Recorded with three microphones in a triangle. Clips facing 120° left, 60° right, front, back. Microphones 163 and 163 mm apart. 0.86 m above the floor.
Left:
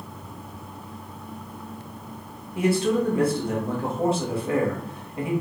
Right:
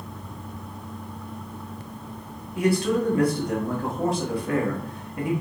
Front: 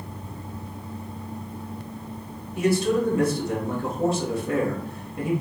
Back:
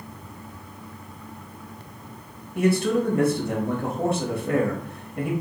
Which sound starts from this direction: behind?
A man speaking, at 2.5 s.